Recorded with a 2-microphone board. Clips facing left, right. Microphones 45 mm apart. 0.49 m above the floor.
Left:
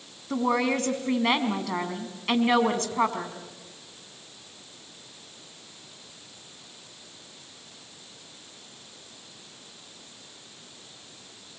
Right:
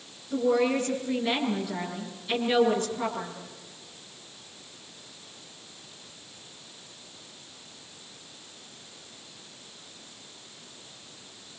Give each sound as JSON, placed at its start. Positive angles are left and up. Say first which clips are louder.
{"t": 0.3, "sound": "a woman speaking", "louder": "right 1 dB", "side_deg": 75, "distance_m": 4.5}